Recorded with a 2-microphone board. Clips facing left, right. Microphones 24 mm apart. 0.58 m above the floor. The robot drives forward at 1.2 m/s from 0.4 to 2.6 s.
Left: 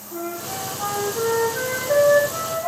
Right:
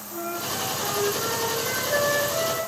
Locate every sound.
0.1 s a flute: 75° left (ahead or behind), 7.5 m; by 2.7 s 85° left, 7 m